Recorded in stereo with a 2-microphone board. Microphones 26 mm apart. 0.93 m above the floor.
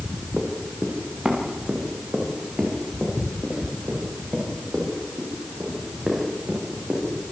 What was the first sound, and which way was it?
Running footsteps, 40° right (ahead or behind).